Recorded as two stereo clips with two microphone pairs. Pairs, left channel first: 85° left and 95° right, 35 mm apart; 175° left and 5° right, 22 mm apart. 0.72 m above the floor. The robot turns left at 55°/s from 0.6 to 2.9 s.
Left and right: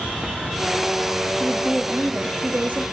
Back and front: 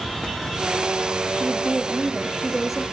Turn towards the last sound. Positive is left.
turn(degrees=-100)